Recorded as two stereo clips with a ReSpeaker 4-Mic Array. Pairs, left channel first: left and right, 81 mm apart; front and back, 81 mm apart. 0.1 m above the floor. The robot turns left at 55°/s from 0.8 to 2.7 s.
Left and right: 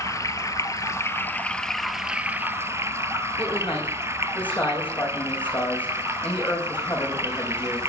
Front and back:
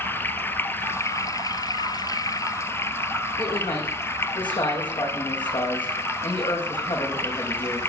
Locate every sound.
0.0 s running water: 55° left, 1.0 m; by 7.9 s 50° right, 1.0 m
3.4 s a man speaking: 20° left, 5.5 m